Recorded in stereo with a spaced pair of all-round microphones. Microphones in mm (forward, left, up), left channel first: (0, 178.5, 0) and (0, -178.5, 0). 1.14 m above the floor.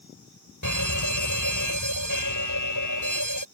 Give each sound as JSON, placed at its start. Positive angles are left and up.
{"t": 0.6, "sound": "a fire alarm", "side_deg": 55}